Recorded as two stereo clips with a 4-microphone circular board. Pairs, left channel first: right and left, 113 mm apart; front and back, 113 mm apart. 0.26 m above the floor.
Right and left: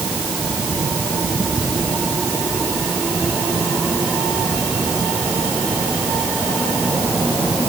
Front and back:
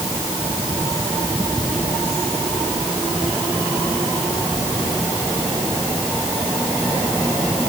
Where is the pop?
I don't hear a pop.